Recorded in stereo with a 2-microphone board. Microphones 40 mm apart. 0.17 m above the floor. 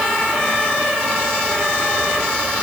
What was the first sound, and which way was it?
Only background noise.